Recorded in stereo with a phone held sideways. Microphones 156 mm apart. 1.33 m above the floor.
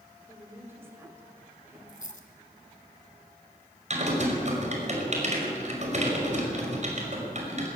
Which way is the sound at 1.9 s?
60° left (ahead or behind).